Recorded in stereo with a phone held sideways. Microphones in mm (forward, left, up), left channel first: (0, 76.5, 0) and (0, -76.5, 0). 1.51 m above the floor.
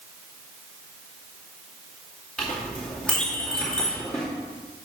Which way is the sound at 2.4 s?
5° left (ahead or behind).